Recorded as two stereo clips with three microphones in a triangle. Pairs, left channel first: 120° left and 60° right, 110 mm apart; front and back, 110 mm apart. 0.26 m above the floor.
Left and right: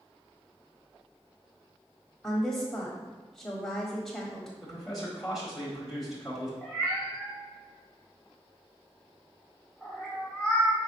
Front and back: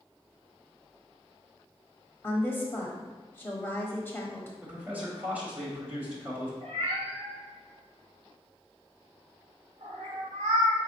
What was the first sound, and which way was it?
A woman speaking, 40° left.